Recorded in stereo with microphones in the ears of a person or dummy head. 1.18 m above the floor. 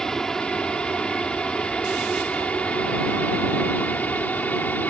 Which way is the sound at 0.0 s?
Centre (ahead or behind).